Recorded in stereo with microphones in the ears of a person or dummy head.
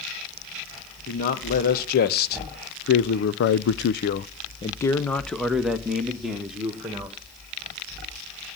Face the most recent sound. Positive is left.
turn(degrees=-15)  # may be behind; listen again after turning